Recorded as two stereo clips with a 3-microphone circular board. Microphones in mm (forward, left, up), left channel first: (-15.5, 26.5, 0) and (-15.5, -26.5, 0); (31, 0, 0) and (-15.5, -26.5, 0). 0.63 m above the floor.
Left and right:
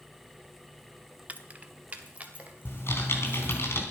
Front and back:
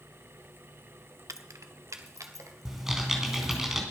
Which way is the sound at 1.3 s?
150° right.